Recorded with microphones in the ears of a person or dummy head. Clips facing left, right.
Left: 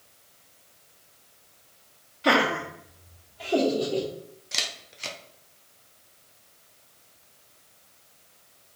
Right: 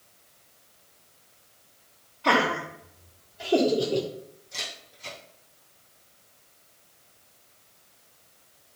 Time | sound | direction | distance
2.2 | laughter | 25° left (ahead or behind) | 1.0 m
4.5 | a camera shutter | 80° left | 0.7 m